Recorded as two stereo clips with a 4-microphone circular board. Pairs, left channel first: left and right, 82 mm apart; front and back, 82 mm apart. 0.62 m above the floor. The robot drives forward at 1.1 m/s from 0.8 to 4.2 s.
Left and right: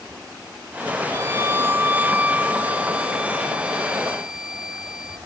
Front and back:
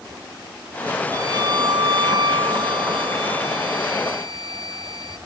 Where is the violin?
135° right; by 5.2 s 170° right.